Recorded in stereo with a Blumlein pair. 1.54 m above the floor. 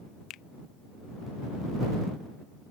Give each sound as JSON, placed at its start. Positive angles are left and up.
{"t": 0.3, "sound": "a finger snap", "azimuth_deg": 35}